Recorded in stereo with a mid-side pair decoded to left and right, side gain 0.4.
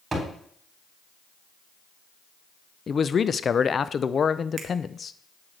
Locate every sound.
0.1 s a thud: 25° right, 3.5 m
2.9 s a man speaking: 45° left, 0.5 m
4.6 s a finger snap: 50° right, 1.4 m